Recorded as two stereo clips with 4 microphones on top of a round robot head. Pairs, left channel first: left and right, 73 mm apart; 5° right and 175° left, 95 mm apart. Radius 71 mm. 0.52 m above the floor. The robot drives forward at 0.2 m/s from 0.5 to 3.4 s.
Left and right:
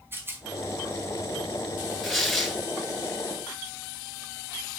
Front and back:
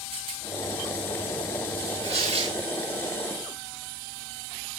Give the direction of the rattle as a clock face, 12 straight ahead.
5 o'clock.